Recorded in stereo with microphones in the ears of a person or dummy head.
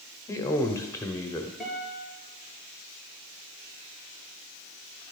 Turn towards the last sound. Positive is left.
turn(degrees=5)  # may be behind; listen again after turning